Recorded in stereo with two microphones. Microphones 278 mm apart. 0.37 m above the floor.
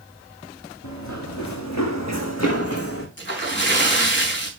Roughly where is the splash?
Left.